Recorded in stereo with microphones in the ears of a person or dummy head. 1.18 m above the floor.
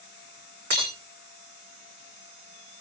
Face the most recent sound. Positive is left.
turn(degrees=-60)  # may be behind; listen again after turning